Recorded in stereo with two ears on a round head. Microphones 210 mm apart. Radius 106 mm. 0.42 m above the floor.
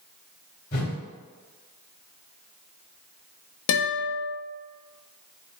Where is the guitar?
75° left (ahead or behind), 0.8 m.